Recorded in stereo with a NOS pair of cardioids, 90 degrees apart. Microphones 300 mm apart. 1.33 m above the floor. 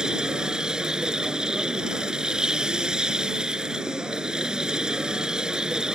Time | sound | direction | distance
0.0 | a machine running | straight ahead | ?